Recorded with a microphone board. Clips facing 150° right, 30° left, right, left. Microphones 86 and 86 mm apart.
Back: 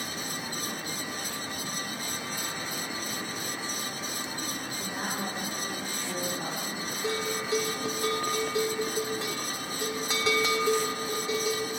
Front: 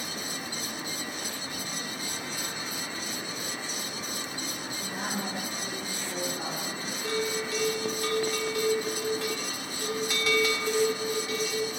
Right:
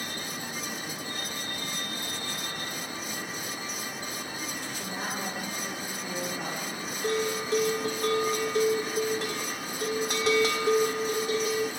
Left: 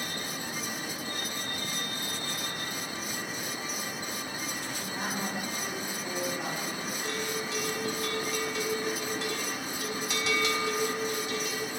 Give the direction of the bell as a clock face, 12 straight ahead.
3 o'clock.